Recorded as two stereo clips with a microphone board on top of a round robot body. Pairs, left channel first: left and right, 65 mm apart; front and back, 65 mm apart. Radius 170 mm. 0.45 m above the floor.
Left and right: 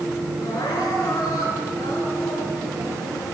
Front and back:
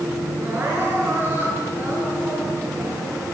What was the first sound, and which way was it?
Crying, 120° left.